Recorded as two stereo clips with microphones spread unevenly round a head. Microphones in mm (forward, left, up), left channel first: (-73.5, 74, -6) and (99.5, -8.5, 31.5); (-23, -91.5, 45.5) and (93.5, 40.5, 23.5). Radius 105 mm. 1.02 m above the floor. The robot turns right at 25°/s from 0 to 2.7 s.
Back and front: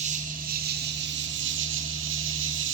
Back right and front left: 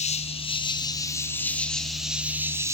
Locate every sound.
0.0 s an insect: 85° right, 2 m; by 2.8 s 15° right, 2 m